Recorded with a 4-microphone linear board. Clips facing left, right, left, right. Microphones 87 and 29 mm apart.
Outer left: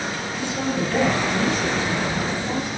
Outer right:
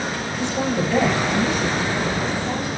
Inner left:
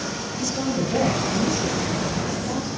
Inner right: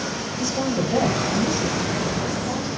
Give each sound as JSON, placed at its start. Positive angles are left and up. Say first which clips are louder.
{"t": 0.4, "sound": "a woman speaking", "louder": "outer right 2 dB, inner right 1 dB", "side_deg": -20, "distance_m": 7.5}